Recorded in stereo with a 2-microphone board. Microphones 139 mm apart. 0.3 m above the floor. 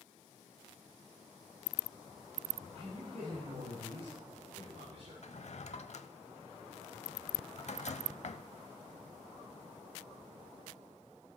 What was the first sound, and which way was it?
A man speaking, 55° right (ahead or behind).